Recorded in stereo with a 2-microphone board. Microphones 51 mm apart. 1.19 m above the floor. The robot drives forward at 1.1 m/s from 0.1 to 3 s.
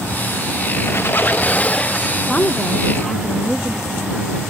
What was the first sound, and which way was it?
A squeak, 60° left (ahead or behind).